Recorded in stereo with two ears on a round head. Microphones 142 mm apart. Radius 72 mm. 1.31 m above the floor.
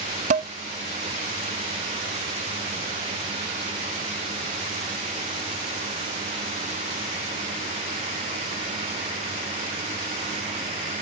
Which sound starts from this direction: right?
Dishes clattering, at 0.3 s.